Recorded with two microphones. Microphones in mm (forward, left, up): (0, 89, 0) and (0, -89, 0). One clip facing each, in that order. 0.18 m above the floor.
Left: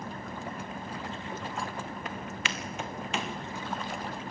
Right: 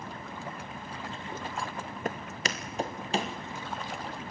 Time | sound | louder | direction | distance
2.0 | footsteps | right 2 dB | 45° right (ahead or behind) | 1.7 m